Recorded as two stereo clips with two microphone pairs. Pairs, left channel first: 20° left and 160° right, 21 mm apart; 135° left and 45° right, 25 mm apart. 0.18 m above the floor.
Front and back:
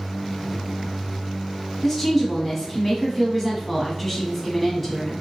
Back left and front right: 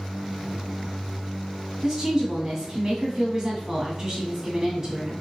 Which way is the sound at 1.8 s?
65° right.